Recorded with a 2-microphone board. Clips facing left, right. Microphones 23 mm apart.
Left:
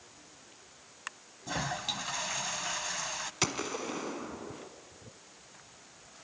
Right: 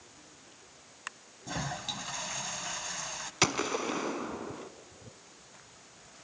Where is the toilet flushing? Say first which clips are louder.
Left 2 dB; 10° left (ahead or behind), 0.6 m.